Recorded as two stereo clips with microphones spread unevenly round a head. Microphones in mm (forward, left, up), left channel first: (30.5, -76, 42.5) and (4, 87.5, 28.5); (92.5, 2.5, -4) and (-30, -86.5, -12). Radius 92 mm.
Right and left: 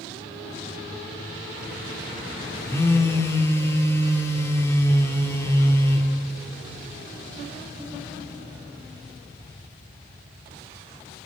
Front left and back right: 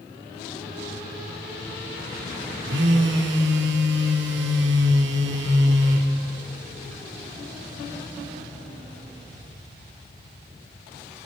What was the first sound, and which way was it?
A phone buzzing, 155° right.